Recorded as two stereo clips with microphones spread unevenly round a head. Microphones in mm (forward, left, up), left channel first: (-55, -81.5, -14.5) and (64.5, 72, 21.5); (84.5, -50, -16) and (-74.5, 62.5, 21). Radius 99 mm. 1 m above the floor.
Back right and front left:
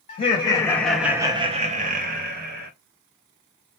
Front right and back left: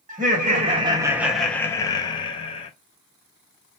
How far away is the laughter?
About 0.7 m.